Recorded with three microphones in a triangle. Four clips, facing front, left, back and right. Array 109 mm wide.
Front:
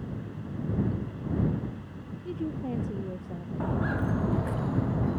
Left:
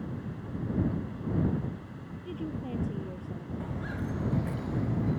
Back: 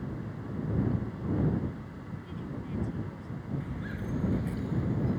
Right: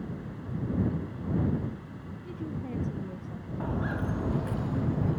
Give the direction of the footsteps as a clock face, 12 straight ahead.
1 o'clock.